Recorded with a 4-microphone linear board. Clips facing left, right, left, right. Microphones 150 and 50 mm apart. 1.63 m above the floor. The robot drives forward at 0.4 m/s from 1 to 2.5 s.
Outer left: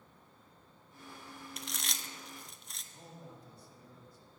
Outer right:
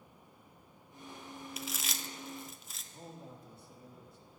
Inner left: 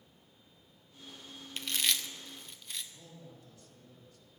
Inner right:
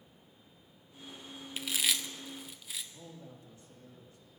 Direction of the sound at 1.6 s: 5° right (ahead or behind).